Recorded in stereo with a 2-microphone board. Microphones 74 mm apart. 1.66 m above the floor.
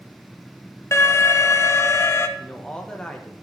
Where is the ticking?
I don't hear ticking.